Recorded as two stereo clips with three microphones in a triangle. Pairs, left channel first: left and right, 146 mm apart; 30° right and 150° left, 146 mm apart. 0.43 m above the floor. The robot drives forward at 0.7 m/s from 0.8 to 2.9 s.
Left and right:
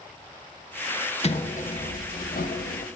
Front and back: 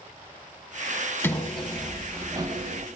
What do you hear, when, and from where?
1.2 s a sliding door: 45° left, 1.2 m; by 2.9 s 110° left, 0.9 m